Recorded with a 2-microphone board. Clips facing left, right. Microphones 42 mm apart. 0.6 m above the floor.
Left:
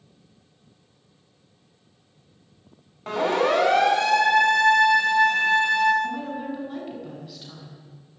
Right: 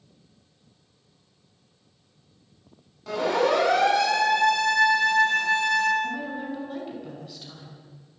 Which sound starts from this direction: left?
A siren, at 3.1 s.